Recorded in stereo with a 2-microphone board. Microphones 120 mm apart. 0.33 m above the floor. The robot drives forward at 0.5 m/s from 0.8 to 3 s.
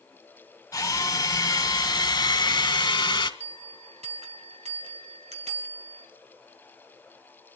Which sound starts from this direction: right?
A bell, at 3.4 s.